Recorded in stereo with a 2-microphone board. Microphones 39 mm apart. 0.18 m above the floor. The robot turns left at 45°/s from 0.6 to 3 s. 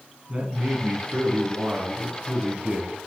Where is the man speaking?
55° right, 1.8 m; by 2.9 s 160° right, 1.8 m.